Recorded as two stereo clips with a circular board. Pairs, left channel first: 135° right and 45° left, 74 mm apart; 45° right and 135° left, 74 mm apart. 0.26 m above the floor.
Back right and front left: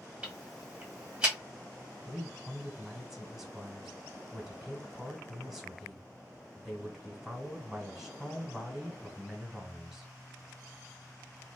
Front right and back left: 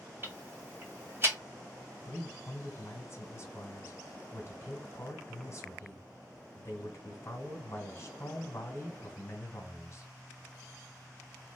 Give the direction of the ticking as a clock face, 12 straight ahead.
8 o'clock.